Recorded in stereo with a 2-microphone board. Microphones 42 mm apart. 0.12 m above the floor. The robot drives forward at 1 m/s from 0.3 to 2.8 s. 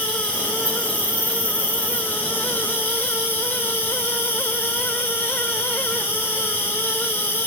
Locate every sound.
0.0 s an insect: 35° left (ahead or behind), 5.5 m; by 7.5 s 55° left (ahead or behind), 4 m